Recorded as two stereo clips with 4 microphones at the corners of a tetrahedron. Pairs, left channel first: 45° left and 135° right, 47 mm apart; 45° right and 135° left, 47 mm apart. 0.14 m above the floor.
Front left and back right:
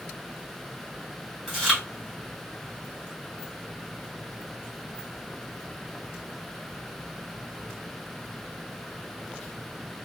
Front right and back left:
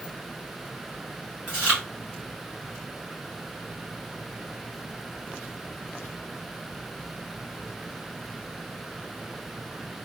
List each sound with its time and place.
1.5 s chewing: 140° left, 1.8 m